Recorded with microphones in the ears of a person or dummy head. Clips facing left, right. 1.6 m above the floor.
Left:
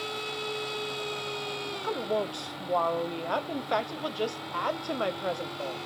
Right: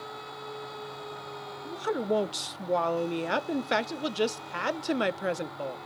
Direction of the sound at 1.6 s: 25° right (ahead or behind).